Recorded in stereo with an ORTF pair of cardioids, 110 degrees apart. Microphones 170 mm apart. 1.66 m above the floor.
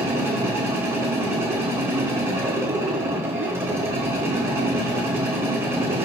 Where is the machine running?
15° right, 1.1 m.